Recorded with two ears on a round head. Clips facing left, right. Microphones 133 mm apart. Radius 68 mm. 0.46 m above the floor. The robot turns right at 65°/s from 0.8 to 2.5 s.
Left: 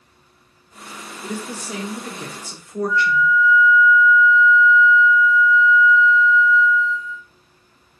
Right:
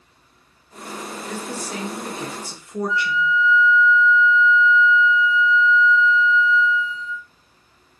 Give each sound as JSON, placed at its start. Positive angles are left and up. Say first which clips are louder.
{"t": 1.2, "sound": "a woman speaking", "louder": "left 3 dB", "side_deg": 15, "distance_m": 0.8}
{"t": 2.9, "sound": "a flute", "louder": "left 4 dB", "side_deg": -25, "distance_m": 2.5}